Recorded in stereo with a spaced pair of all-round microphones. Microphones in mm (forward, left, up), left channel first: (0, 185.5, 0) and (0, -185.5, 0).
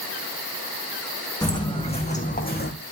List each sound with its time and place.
1.4 s footsteps: 10° left (ahead or behind), 5 m; by 2.7 s 25° left (ahead or behind), 4 m